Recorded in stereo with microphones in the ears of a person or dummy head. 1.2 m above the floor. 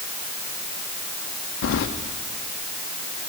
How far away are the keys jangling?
About 0.9 m.